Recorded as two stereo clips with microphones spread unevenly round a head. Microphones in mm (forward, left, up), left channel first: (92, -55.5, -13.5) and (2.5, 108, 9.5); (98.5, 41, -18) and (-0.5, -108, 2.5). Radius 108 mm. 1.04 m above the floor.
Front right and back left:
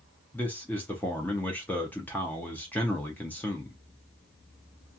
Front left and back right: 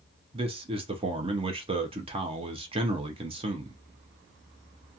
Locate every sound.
0.3 s a man speaking: 110° right, 0.5 m